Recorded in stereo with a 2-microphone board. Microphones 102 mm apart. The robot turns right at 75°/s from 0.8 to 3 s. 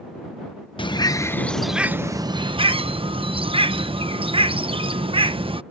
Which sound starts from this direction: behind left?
A bird, at 0.8 s.